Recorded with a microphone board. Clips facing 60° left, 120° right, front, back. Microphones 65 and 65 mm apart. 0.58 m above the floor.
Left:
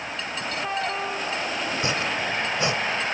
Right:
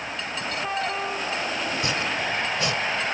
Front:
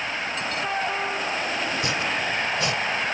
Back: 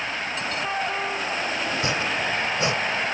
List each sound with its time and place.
1.7 s chopping: 120° left